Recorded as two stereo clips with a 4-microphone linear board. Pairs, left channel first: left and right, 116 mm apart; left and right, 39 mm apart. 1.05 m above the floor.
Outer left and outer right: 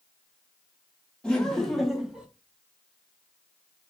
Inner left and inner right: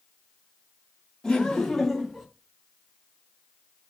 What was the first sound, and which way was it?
Laughter, 10° left (ahead or behind).